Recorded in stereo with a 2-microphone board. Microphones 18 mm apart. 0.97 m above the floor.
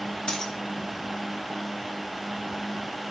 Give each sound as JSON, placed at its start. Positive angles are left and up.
{"t": 0.3, "sound": "a dropped coin", "side_deg": 60, "distance_m": 1.7}